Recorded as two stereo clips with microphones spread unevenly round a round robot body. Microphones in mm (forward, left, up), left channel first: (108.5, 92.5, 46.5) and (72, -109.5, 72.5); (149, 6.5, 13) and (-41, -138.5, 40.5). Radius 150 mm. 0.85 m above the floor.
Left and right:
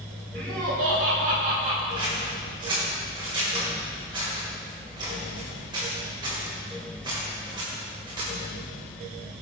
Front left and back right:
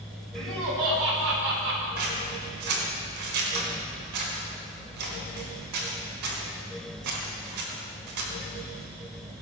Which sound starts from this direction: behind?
Scissors, at 2.0 s.